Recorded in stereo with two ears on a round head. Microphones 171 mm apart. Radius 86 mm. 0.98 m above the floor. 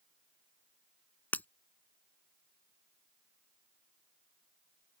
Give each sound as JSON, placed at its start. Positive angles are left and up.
{"t": 1.3, "sound": "breaking glass", "side_deg": 10}